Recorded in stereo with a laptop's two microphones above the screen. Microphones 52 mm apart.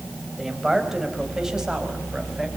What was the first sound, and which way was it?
A man speaking, 10° right (ahead or behind).